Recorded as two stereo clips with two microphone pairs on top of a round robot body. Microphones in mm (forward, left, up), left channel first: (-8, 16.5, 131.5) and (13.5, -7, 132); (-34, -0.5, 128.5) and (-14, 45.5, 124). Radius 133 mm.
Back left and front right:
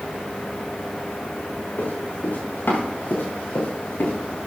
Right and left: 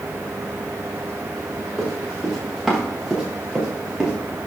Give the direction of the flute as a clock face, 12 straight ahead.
No flute in this recording.